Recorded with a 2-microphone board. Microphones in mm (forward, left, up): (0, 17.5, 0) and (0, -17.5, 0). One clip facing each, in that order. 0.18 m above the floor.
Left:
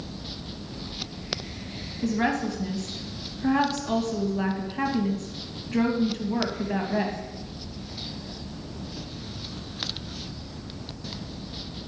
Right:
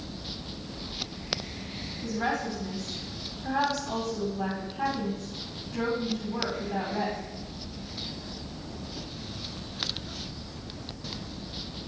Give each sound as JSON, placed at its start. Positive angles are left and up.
{"t": 2.0, "sound": "a woman speaking", "side_deg": 70, "distance_m": 3.0}